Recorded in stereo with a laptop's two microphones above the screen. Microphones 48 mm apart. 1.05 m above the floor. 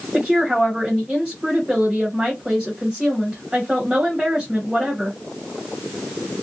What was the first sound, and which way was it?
A woman speaking, 25° right (ahead or behind).